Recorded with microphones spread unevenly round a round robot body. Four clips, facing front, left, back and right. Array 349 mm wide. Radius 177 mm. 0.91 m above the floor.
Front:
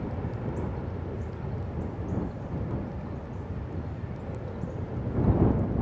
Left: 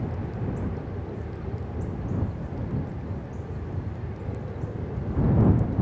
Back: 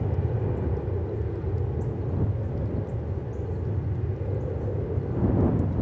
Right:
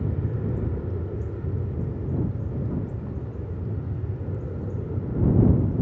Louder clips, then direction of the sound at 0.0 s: Right 2 dB, back 4 dB; 135° right.